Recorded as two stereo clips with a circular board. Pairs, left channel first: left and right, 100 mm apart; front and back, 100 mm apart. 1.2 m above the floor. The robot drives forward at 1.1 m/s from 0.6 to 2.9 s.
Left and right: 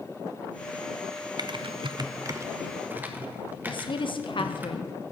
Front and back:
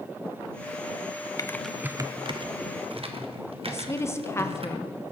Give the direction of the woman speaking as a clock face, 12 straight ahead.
10 o'clock.